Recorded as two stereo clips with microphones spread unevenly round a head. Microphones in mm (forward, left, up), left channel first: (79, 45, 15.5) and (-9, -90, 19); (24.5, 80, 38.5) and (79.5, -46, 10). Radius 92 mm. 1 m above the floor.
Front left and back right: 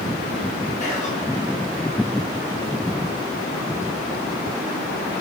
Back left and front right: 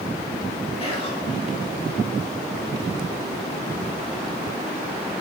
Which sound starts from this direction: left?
Whispering, at 0.8 s.